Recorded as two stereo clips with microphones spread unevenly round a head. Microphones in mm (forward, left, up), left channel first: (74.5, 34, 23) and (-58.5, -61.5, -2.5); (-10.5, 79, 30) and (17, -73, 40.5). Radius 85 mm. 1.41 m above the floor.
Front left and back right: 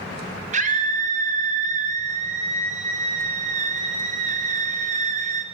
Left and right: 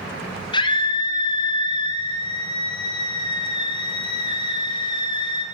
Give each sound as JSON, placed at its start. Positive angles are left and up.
{"t": 0.5, "sound": "a scream", "azimuth_deg": 165, "distance_m": 5.5}